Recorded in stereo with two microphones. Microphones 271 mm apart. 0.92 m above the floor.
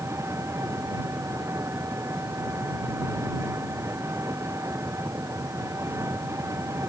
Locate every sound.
0.0 s an engine running: 10° right (ahead or behind)